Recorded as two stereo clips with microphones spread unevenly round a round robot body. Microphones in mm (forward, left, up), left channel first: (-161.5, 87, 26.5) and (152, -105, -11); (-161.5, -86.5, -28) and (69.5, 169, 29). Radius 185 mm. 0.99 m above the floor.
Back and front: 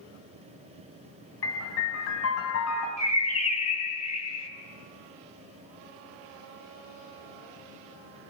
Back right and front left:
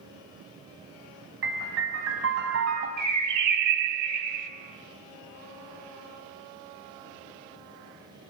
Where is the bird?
75° left, 2 m.